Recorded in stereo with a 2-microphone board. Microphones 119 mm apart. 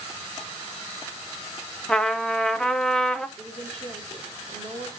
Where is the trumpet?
5° left (ahead or behind), 0.7 m.